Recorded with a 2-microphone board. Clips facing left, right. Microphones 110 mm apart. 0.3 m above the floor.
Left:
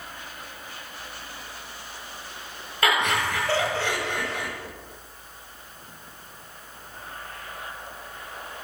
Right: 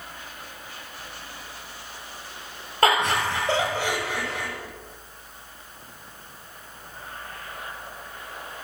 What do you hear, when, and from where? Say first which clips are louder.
2.8 s laughter: right 3 dB; 40° right (ahead or behind), 1.4 m; by 4.5 s centre (ahead or behind), 1.5 m